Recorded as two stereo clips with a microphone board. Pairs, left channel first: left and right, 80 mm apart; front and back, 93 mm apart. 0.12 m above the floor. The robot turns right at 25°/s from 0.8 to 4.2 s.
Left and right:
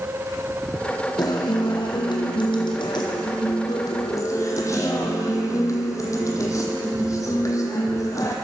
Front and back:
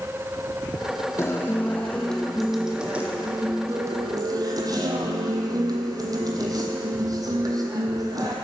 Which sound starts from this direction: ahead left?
A guitar, at 1.2 s.